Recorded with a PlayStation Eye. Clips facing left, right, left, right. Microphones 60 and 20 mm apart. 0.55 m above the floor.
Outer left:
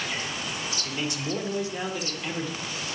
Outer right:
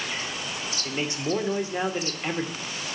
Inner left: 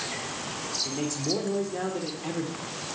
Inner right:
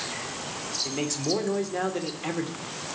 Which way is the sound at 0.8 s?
30° right (ahead or behind).